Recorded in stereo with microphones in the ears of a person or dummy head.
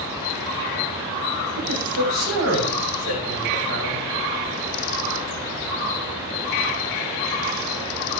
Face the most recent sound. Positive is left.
turn(degrees=-75)  # may be behind; listen again after turning